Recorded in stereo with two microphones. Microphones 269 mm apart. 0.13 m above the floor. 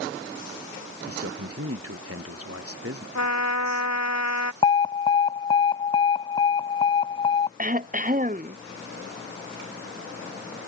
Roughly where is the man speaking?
Right.